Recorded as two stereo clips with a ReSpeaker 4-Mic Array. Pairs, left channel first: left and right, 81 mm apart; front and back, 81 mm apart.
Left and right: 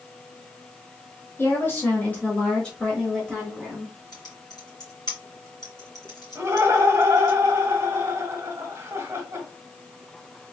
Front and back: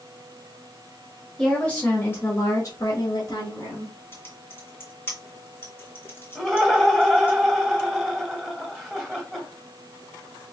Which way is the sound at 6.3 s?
85° right.